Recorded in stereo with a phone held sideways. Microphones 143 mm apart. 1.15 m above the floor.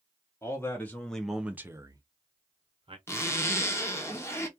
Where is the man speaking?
20° left (ahead or behind), 0.8 m; by 3.0 s 40° right (ahead or behind), 0.8 m.